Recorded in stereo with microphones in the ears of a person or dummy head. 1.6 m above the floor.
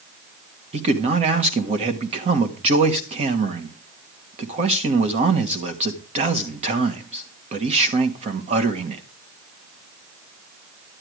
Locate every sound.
0.7 s a man speaking: 40° right (ahead or behind), 1.5 m